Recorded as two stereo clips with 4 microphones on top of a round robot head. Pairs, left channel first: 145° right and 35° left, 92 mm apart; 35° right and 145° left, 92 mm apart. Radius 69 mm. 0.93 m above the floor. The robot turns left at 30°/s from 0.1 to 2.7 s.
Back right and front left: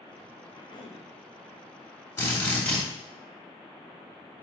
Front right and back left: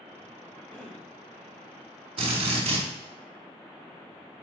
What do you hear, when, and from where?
0.5 s a cough: 105° right, 2 m; by 1.1 s 120° right, 2 m
2.2 s a drill: 155° left, 3 m; by 2.8 s 140° left, 3 m